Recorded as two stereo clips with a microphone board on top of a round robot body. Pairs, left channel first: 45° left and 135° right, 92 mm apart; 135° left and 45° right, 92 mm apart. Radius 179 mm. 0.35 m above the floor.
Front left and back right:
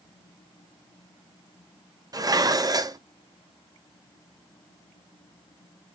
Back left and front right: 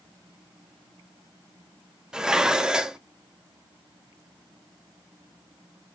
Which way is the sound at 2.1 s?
125° right.